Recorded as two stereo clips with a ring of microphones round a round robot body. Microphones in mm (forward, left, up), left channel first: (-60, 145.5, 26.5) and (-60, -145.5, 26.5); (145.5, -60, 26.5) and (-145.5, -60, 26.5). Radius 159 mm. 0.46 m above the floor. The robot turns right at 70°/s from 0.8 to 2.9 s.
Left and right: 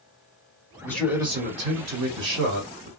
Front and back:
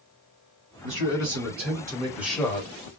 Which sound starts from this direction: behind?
A man speaking, at 0.8 s.